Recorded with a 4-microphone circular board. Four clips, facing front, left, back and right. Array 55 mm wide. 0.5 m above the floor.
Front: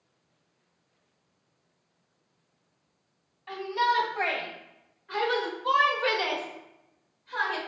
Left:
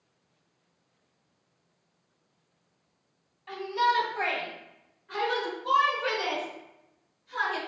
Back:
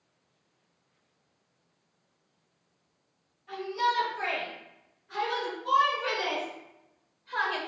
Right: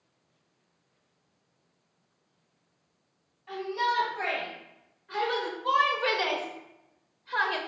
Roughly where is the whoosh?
No whoosh in this recording.